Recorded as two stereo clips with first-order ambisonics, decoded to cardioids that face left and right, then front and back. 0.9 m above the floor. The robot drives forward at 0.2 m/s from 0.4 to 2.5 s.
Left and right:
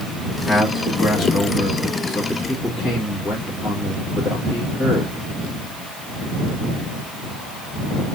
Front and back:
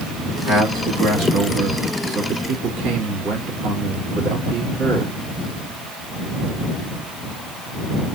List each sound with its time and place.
0.5 s a man speaking: 160° left, 1.9 m; by 5.1 s 165° left, 2.5 m